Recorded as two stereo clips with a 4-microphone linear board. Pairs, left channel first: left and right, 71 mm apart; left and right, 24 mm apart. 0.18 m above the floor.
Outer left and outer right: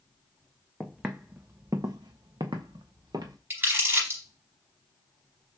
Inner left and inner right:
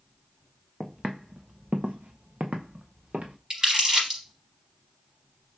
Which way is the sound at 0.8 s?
5° right (ahead or behind).